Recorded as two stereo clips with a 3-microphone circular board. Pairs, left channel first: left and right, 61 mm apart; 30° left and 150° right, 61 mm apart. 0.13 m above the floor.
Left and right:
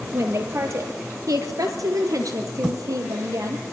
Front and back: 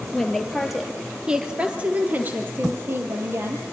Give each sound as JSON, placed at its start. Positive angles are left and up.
{"t": 0.1, "sound": "a woman speaking", "azimuth_deg": -50, "distance_m": 3.5}